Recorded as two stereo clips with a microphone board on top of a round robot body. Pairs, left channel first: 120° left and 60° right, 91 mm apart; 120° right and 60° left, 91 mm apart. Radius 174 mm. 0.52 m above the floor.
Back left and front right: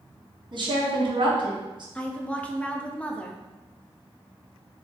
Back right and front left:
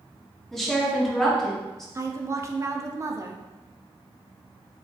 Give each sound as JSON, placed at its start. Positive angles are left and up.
{"t": 0.5, "sound": "a woman speaking", "azimuth_deg": -35, "distance_m": 1.2}
{"t": 1.9, "sound": "a woman speaking", "azimuth_deg": 55, "distance_m": 0.7}